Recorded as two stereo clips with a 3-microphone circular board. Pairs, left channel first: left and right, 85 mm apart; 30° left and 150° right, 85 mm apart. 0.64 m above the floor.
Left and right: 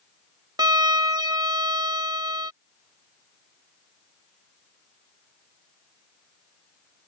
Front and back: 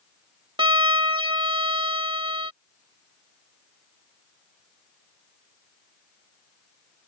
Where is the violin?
130° right.